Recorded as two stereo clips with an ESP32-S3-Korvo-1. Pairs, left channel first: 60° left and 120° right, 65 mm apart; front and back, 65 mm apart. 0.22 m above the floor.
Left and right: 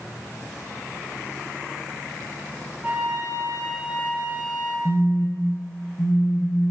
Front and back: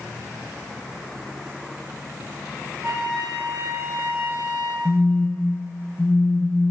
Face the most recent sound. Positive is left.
turn(degrees=85)